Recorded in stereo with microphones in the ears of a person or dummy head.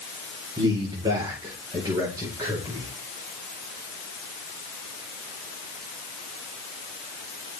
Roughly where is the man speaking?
Right.